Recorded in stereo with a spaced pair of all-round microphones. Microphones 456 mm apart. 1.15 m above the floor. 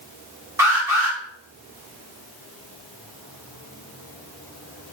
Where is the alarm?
5° right (ahead or behind), 3.5 m.